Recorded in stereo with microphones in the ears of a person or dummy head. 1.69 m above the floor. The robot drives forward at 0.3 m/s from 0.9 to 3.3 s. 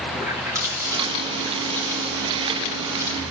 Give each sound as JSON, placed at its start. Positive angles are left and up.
{"t": 0.1, "sound": "a running tap", "side_deg": -15, "distance_m": 2.0}